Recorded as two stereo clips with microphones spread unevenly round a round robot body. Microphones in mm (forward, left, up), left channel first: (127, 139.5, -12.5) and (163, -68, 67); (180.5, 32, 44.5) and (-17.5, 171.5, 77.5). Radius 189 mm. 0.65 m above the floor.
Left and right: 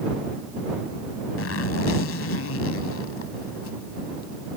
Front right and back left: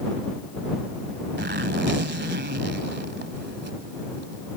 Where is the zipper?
100° left.